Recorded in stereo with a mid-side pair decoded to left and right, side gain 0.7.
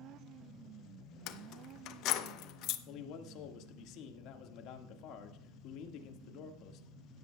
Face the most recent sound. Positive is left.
turn(degrees=60)